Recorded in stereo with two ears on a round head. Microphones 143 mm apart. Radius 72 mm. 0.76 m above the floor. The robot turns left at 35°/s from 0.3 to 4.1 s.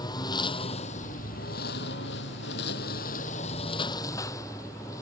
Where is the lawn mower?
155° left; by 5.0 s 20° left.